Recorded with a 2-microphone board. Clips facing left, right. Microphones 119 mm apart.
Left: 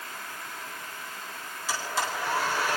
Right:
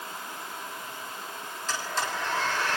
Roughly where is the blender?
Centre.